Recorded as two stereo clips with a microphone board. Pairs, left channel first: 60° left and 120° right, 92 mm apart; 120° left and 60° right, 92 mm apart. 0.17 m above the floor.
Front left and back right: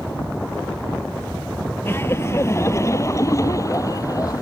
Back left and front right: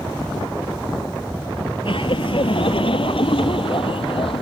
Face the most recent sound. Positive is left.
turn(degrees=110)